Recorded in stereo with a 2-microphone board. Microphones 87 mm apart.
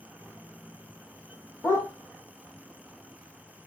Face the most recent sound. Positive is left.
turn(degrees=30)  # may be behind; listen again after turning